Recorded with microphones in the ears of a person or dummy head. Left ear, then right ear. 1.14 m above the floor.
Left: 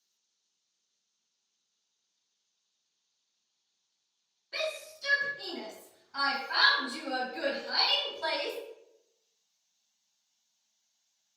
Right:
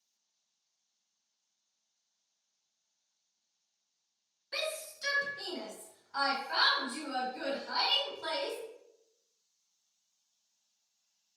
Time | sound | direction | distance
4.5 | a shout | 60° right (ahead or behind) | 1.3 m